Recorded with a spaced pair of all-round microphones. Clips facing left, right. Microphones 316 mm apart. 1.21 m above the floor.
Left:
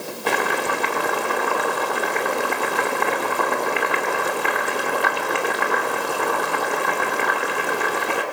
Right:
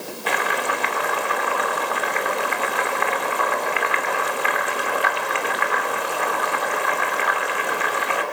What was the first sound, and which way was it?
Boiling, 50° left (ahead or behind).